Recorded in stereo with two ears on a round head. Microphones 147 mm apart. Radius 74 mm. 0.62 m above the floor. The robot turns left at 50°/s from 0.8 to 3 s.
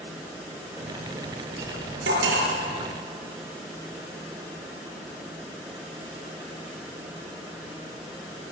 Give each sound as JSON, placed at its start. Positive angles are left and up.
{"t": 1.6, "sound": "cutlery clinking", "side_deg": -60, "distance_m": 7.0}